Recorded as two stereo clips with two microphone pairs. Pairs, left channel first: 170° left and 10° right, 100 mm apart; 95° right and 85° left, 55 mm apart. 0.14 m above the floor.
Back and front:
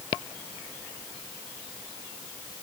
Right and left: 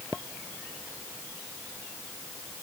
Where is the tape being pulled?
No tape being pulled in this recording.